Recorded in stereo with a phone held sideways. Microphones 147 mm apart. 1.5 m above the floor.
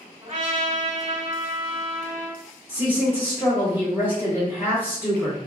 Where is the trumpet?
45° right (ahead or behind), 1.7 m.